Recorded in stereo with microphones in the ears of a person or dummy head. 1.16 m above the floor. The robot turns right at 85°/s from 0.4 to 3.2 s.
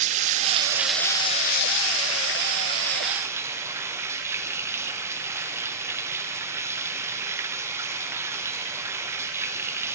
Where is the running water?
45° right, 0.7 m; by 9.9 s 165° right, 0.7 m.